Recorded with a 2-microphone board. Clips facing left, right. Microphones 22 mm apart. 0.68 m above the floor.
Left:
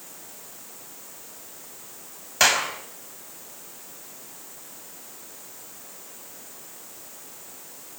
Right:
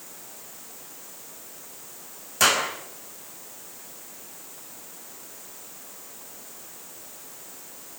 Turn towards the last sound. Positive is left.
turn(degrees=35)  # may be behind; listen again after turning